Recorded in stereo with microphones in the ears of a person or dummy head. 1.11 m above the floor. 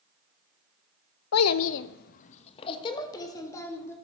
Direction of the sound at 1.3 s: 80° left.